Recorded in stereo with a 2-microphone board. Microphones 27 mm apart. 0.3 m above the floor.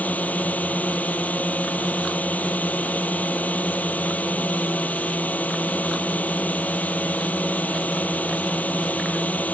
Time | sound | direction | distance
0.0 | a drone | 70° left (ahead or behind) | ?